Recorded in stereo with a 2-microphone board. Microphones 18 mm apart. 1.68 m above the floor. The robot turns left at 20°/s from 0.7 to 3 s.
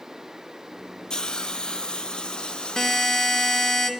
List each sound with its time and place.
1.1 s a hiss: 115° left, 0.7 m; by 3.8 s 75° left, 0.7 m
2.8 s a buzzer: 35° left (ahead or behind), 1.3 m; by 3.9 s 40° left (ahead or behind), 1.3 m